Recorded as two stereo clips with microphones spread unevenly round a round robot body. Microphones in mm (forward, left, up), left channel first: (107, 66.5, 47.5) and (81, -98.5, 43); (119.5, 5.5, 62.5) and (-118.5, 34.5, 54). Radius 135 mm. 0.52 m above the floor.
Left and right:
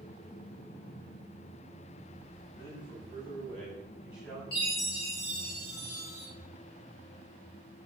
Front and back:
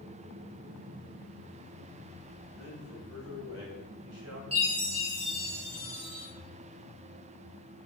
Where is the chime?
110° left, 3 m.